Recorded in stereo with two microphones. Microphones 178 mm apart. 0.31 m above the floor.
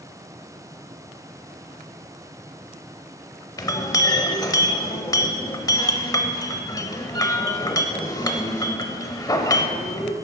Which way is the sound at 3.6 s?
20° left (ahead or behind).